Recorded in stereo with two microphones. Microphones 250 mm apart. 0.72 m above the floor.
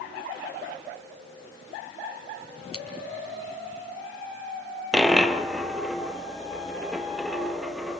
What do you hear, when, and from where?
2.7 s scissors: 65° left (ahead or behind), 4.5 m
4.9 s a dropped coin: centre (ahead or behind), 1.5 m